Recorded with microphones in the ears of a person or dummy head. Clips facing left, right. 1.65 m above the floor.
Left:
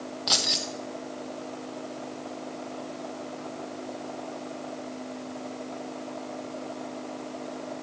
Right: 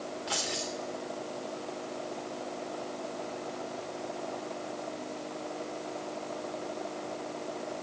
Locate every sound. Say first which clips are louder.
0.3 s keys jangling: left 3 dB; 55° left (ahead or behind), 1.4 m